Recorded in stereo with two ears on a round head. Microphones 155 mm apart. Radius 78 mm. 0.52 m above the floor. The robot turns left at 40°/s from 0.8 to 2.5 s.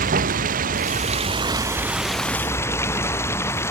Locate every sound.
0.0 s running water: 130° right; by 3.7 s 165° left